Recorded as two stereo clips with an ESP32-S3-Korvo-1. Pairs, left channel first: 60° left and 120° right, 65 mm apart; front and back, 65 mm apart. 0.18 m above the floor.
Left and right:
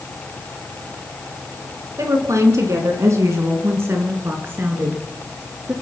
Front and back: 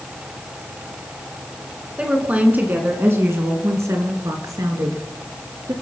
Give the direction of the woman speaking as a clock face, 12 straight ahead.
4 o'clock.